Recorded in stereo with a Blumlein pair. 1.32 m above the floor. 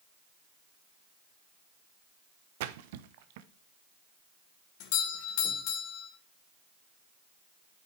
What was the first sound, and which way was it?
A splash, 50° right.